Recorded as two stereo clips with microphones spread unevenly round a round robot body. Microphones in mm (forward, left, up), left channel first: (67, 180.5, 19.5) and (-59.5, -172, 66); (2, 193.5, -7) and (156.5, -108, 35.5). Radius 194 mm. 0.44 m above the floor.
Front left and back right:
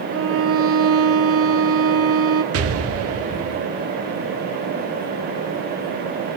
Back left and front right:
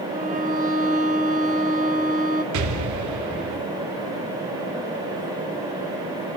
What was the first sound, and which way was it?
A violin, 120° right.